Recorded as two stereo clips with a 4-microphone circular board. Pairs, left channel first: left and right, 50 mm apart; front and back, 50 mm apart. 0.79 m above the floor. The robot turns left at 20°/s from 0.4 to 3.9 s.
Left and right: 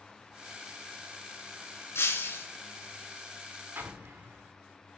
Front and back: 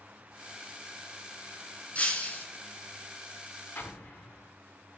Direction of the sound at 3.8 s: 50° right.